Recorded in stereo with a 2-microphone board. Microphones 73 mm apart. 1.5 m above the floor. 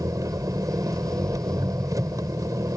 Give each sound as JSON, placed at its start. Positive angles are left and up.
{"t": 0.0, "sound": "an engine running", "side_deg": -50}